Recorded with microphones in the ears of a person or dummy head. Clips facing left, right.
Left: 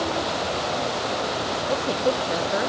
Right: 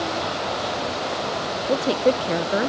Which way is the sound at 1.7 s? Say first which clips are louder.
Right 5 dB; 25° right (ahead or behind).